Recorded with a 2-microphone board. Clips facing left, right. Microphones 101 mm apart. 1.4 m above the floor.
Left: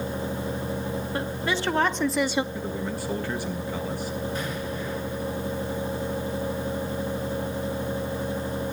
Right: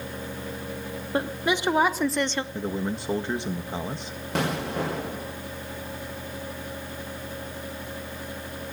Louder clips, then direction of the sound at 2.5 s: Right 1 dB; 25° right (ahead or behind).